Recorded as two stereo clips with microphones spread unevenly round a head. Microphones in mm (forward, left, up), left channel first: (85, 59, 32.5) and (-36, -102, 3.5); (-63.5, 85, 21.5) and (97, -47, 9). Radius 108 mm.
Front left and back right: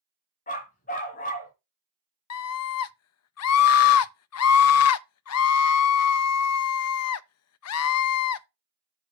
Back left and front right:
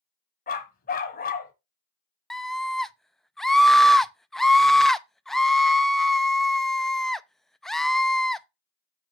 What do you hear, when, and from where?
0.5 s a dog barking: 100° left, 1.4 m
2.3 s a scream: 50° left, 0.7 m